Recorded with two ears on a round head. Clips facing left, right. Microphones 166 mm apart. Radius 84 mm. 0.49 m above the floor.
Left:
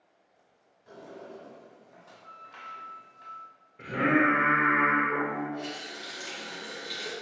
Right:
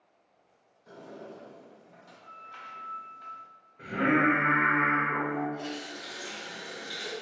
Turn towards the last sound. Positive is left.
turn(degrees=25)  # may be behind; listen again after turning